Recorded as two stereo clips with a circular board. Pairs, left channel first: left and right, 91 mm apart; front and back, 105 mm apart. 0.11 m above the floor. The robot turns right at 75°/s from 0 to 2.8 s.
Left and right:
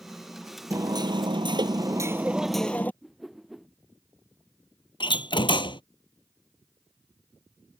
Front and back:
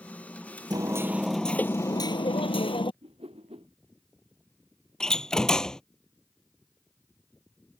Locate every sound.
0.7 s hammering: 140° right; by 2.9 s 20° left
3.0 s a whoosh: straight behind
5.0 s a door slam: 85° left